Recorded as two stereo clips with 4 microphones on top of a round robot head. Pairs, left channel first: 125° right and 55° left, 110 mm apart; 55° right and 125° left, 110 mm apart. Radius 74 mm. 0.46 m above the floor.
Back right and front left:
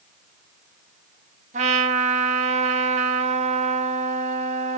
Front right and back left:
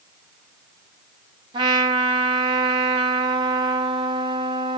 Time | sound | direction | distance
1.5 | a trumpet | 75° left | 0.7 m